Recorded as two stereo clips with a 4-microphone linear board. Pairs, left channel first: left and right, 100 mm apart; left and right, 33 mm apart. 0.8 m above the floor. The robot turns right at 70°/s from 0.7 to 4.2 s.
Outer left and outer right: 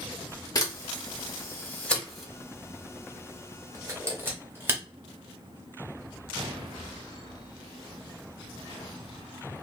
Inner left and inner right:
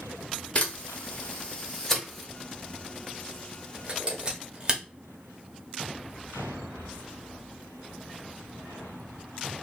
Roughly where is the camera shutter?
Left.